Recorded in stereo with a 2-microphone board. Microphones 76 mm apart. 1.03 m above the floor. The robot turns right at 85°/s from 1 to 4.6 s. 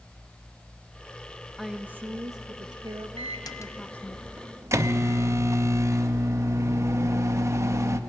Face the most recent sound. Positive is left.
turn(degrees=-140)